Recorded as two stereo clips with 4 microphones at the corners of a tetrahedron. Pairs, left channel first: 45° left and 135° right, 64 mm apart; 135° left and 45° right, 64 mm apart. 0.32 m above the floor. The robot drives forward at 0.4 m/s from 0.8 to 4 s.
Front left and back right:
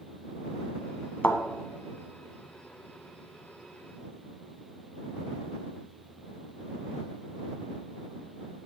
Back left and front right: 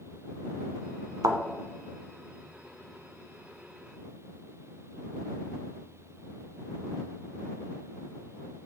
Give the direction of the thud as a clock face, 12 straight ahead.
1 o'clock.